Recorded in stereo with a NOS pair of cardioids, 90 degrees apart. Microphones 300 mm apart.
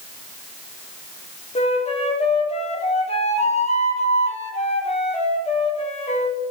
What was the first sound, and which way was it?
A flute, 20° left.